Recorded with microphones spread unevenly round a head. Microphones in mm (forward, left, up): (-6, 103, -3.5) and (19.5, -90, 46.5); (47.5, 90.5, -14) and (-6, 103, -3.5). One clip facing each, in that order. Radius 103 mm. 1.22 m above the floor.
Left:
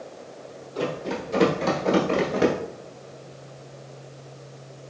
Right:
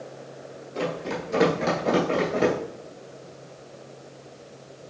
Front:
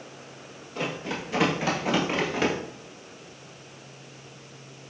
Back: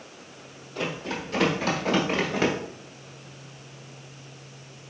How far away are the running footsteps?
About 1.5 m.